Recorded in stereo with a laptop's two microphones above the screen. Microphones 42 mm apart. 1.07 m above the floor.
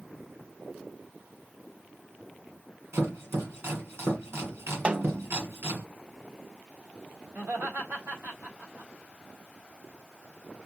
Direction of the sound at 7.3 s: 60° right (ahead or behind).